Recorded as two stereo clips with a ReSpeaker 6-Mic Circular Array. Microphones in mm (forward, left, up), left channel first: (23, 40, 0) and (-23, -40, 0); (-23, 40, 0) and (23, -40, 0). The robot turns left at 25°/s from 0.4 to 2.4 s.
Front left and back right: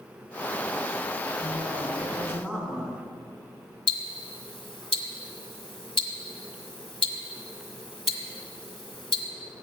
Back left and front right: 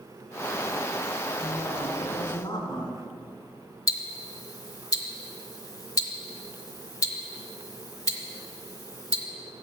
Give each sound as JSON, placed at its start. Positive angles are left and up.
{"t": 1.4, "sound": "a woman speaking", "azimuth_deg": 180, "distance_m": 4.0}
{"t": 3.9, "sound": "ticking", "azimuth_deg": 70, "distance_m": 1.3}